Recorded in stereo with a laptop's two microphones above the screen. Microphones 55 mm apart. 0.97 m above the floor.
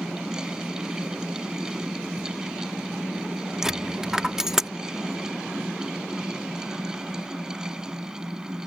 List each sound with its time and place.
0.0 s a fan: 15° right (ahead or behind)
3.6 s a dropped coin: 10° right (ahead or behind)